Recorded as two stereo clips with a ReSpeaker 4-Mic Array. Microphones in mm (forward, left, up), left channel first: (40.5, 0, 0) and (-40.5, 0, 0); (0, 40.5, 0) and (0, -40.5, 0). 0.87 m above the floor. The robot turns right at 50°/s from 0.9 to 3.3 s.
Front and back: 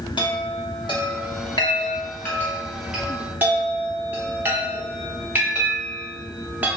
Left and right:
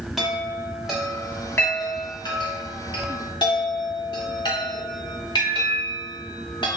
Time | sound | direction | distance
0.2 | a chime | 5° right | 0.9 m